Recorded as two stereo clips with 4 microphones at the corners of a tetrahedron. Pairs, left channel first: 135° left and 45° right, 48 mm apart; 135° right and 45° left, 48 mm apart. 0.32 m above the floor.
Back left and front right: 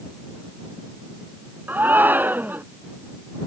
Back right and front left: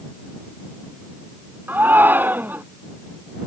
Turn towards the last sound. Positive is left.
turn(degrees=0)